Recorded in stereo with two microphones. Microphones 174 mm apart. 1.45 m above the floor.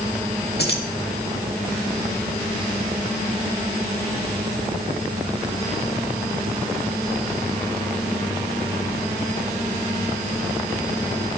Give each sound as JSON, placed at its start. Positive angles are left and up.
{"t": 0.6, "sound": "keys jangling", "side_deg": 70, "distance_m": 1.7}